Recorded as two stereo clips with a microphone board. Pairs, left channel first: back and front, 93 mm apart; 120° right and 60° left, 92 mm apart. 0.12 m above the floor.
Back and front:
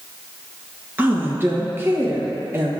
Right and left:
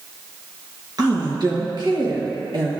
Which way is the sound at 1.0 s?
60° left.